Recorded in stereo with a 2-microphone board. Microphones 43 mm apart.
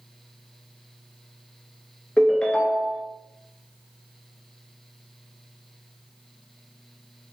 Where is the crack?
I don't hear a crack.